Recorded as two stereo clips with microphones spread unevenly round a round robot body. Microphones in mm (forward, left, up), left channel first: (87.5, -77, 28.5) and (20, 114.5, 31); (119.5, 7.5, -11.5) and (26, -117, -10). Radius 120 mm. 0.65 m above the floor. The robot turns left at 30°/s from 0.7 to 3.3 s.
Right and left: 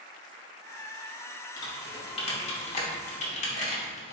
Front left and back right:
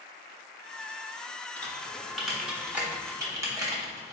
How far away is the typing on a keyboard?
About 0.7 m.